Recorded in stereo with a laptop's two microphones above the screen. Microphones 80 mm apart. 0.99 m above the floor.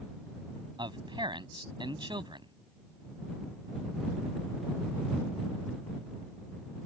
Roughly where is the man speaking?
Right.